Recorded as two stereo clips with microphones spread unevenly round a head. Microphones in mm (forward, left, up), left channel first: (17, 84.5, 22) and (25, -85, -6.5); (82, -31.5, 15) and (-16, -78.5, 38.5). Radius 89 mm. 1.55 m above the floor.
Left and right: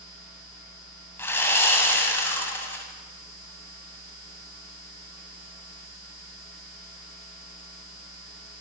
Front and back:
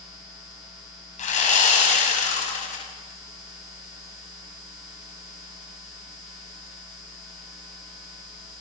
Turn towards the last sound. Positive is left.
turn(degrees=15)